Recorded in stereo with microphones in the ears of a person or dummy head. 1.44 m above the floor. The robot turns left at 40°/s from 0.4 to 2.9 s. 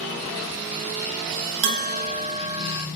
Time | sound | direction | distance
1.6 | a bell | 115° right | 2.0 m